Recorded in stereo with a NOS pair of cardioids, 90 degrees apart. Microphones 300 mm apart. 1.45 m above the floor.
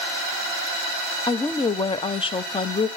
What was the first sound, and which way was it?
A woman speaking, 15° left.